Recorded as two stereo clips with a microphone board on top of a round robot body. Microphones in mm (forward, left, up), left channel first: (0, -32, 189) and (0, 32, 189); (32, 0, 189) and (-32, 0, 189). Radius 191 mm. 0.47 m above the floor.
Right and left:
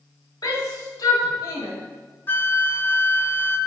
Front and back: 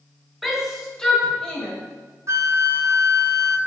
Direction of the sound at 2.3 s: 145° right.